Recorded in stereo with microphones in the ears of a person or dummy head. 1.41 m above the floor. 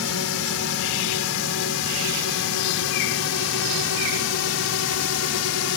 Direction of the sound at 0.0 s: 70° left (ahead or behind).